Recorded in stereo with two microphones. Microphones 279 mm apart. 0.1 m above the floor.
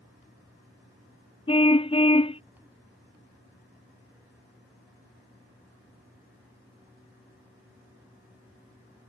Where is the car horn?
20° left (ahead or behind).